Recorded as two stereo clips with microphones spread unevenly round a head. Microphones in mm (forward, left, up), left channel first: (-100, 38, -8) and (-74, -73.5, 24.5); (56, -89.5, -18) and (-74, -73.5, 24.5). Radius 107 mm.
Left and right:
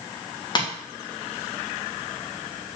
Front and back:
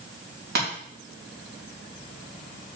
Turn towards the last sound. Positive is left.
turn(degrees=150)